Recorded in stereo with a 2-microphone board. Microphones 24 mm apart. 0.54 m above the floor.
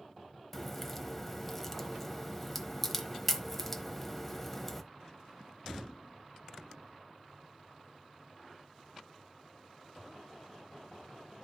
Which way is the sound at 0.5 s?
10° left (ahead or behind).